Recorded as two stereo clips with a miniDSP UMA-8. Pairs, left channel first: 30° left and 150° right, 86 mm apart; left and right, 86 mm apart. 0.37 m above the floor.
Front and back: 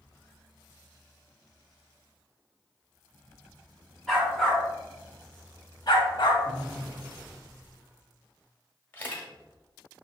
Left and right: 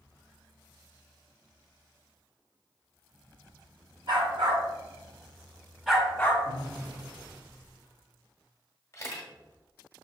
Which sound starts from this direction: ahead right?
A dog barking, at 4.1 s.